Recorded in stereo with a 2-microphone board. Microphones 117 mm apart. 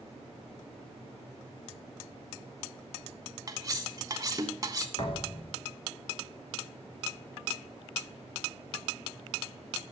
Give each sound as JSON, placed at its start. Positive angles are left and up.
{"t": 3.5, "sound": "cutlery clinking", "side_deg": -30, "distance_m": 0.7}
{"t": 5.0, "sound": "a thud", "side_deg": 45, "distance_m": 1.4}